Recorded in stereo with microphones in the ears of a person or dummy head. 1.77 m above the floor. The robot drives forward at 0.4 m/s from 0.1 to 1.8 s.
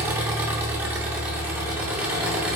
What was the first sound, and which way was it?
An engine running, 10° right (ahead or behind).